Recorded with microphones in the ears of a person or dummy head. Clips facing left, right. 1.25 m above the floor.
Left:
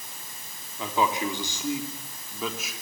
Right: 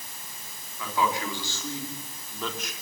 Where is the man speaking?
25° left (ahead or behind), 4 m; by 2.7 s centre (ahead or behind), 4 m.